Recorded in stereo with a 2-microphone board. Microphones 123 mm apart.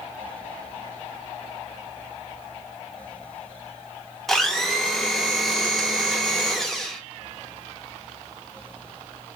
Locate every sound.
4.3 s a blender: centre (ahead or behind), 0.6 m